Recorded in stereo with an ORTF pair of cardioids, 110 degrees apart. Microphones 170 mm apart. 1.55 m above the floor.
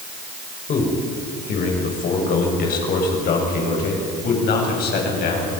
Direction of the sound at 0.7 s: 55° left.